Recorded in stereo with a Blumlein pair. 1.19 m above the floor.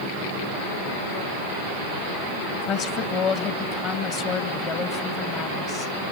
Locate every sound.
2.5 s a woman speaking: 35° left, 1.9 m